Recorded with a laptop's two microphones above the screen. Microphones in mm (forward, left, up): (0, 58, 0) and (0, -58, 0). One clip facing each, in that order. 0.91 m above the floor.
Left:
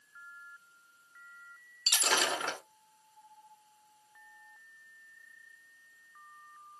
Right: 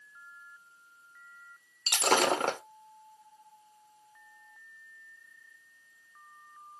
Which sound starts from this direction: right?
Breaking glass, at 1.9 s.